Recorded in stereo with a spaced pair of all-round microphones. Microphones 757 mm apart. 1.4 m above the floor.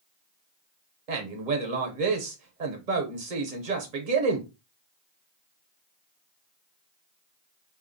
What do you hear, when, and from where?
1.1 s a man speaking: 75° right (ahead or behind), 0.9 m